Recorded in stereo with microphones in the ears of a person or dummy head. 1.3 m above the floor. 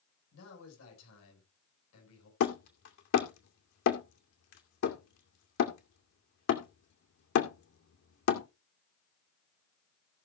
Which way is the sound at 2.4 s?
65° left (ahead or behind).